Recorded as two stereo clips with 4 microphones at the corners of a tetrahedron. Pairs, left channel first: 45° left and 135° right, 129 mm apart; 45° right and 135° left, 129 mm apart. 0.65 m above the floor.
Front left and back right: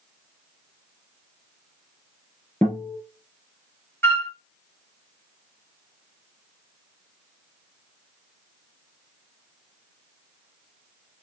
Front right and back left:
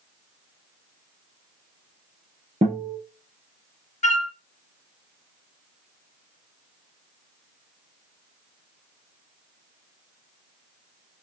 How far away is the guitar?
About 2.5 m.